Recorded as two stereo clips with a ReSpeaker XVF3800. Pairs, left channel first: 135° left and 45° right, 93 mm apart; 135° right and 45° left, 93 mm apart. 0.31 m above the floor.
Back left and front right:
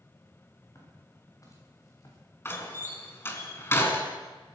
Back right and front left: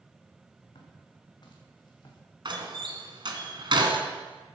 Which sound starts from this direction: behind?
Footsteps, at 0.8 s.